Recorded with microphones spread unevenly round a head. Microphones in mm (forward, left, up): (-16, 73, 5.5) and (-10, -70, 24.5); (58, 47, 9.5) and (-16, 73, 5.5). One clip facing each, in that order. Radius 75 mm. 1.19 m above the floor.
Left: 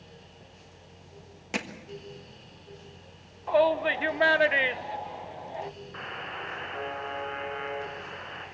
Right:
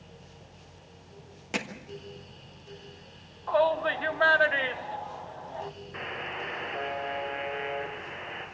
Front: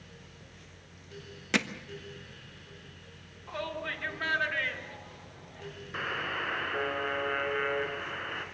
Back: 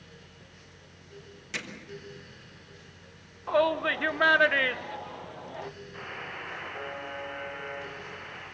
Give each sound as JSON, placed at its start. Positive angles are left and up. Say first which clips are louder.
{"t": 1.5, "sound": "hammering", "louder": "even, front 9 dB", "azimuth_deg": 5, "distance_m": 1.3}
{"t": 3.5, "sound": "a shout", "louder": "left 2 dB, back 12 dB", "azimuth_deg": 155, "distance_m": 1.0}
{"t": 5.9, "sound": "a buzzer", "louder": "right 2 dB, front 9 dB", "azimuth_deg": -15, "distance_m": 2.5}